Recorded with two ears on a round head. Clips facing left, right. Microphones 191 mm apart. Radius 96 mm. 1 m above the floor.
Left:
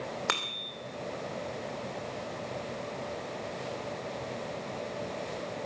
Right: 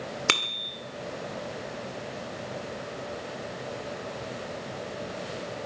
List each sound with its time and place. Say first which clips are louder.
0.3 s a bicycle bell: right 4 dB; 40° right (ahead or behind), 2.5 m